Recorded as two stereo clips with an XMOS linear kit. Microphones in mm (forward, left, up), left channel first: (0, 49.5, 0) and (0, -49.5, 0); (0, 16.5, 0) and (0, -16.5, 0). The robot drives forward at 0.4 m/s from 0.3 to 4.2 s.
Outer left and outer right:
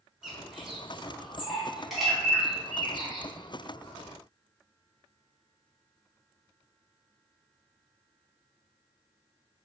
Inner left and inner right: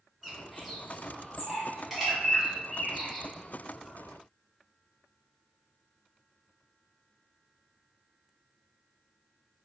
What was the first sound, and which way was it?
A bird, 5° right (ahead or behind).